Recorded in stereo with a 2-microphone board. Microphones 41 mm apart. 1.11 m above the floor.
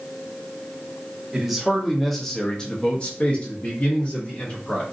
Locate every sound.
1.3 s a man speaking: 10° right (ahead or behind), 0.9 m; by 4.8 s 40° left (ahead or behind), 1.4 m